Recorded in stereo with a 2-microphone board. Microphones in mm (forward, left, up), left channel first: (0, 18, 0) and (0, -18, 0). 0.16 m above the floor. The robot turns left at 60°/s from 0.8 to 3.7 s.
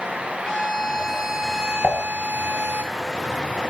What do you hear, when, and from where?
0.5 s a violin: 30° left, 1.0 m; by 2.8 s 90° right, 1.0 m
1.8 s dishes clattering: 40° left (ahead or behind), 1.9 m; by 2.0 s 30° left (ahead or behind), 1.9 m